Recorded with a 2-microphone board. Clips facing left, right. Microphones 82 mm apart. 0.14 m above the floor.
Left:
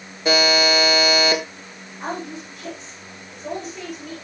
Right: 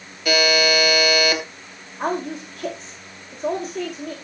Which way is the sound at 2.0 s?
40° right (ahead or behind).